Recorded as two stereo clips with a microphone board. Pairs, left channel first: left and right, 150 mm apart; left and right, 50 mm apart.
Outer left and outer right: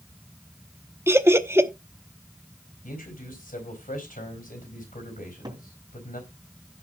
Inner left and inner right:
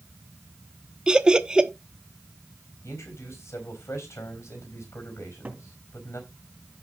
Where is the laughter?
15° right (ahead or behind), 0.9 m.